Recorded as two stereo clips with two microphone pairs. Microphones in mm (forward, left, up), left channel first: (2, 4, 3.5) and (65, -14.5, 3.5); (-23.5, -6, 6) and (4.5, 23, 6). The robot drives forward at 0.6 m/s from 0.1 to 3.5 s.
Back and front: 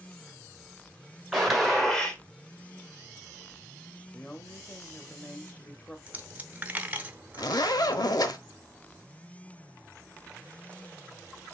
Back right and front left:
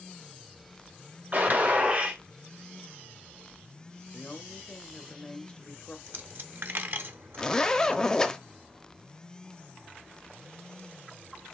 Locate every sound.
1.3 s a gunshot: 65° left, 1.7 m; by 2.2 s 85° left, 1.6 m
4.1 s a woman speaking: 155° right, 0.8 m
6.1 s a dropped coin: 40° left, 0.7 m
7.4 s a zipper: 150° left, 0.6 m